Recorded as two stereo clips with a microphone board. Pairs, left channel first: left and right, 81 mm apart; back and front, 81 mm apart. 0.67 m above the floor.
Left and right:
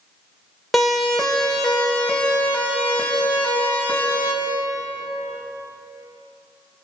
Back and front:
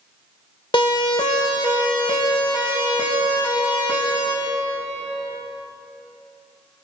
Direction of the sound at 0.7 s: Straight behind.